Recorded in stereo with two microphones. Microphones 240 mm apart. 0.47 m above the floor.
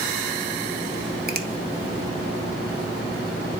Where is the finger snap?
40° right (ahead or behind), 0.7 m.